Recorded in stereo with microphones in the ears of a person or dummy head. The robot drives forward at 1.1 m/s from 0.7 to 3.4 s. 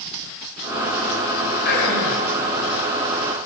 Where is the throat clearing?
55° left (ahead or behind), 7 m; by 2.2 s 60° left (ahead or behind), 6.5 m.